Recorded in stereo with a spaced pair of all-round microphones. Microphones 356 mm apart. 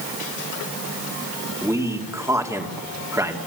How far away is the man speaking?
About 2.5 m.